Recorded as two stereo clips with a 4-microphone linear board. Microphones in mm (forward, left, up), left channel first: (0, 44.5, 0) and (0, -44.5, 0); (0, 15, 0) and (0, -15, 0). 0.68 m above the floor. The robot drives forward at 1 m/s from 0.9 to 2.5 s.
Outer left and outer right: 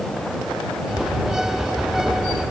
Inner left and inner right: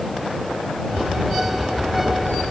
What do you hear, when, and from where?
Only background noise.